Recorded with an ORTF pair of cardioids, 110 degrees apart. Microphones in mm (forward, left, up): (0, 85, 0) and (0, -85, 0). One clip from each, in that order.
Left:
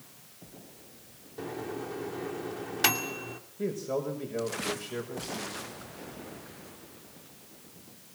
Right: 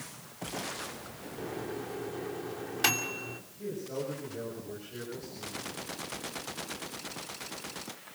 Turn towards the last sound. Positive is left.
turn(degrees=70)